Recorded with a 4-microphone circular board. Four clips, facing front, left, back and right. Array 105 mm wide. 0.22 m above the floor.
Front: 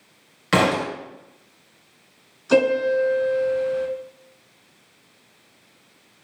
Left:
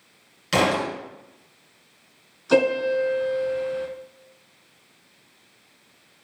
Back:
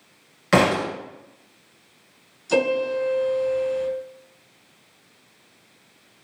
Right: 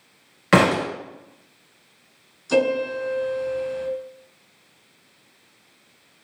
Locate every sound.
0.5 s a thud: 90° right, 1.5 m
2.5 s a piano: 45° left, 1.0 m